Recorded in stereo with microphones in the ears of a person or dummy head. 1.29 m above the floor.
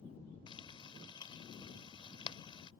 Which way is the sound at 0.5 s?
25° left (ahead or behind).